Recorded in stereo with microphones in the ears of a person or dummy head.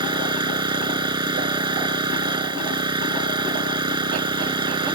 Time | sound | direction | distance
0.0 | an engine running | 20° right (ahead or behind) | ?